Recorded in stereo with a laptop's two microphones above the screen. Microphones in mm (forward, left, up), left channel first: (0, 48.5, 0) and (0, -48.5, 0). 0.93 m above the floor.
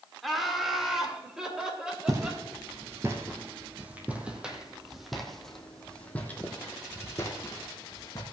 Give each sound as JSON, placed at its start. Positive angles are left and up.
{"t": 0.2, "sound": "laughter", "side_deg": 0, "distance_m": 2.5}
{"t": 2.1, "sound": "footsteps", "side_deg": -35, "distance_m": 3.0}